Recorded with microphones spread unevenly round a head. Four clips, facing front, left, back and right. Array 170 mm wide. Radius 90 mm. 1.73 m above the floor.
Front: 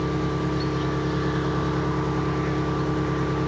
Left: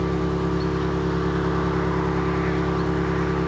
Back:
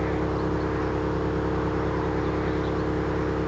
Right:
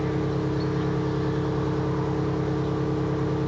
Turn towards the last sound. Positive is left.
turn(degrees=55)